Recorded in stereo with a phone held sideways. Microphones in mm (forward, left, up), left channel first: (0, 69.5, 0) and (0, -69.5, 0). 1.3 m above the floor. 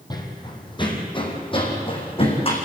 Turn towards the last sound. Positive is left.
turn(degrees=40)  # may be behind; listen again after turning